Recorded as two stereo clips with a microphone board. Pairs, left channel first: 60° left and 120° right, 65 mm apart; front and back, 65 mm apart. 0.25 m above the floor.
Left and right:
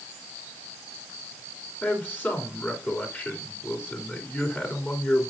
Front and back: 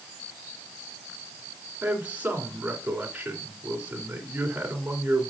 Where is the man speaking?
115° left, 3.5 m.